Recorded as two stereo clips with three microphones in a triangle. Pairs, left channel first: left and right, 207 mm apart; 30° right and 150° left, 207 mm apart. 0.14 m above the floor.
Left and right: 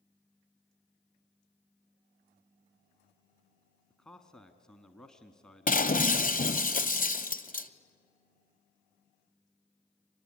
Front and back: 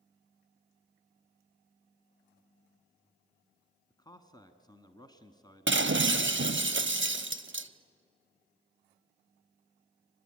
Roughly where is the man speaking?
Ahead.